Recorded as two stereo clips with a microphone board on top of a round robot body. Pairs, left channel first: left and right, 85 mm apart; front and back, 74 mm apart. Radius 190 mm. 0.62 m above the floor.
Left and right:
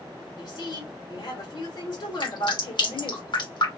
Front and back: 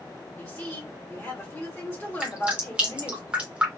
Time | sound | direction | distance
0.4 | a woman speaking | 65° left | 2.0 m
2.2 | dripping | 110° left | 1.9 m